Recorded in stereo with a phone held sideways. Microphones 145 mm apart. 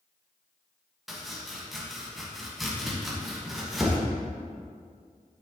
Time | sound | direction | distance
1.1 | chopping | centre (ahead or behind) | 1.5 m